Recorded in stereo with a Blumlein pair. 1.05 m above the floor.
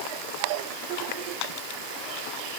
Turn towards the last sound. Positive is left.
No sound to turn to.